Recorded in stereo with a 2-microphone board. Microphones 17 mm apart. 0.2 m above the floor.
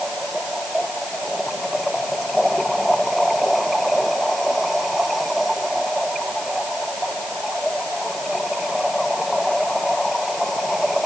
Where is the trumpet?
No trumpet in this recording.